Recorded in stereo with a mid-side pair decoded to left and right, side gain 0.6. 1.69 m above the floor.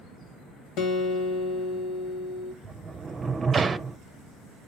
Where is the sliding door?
30° right, 0.8 m.